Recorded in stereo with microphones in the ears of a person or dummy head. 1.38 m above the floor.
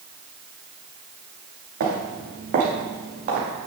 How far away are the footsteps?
About 5.5 m.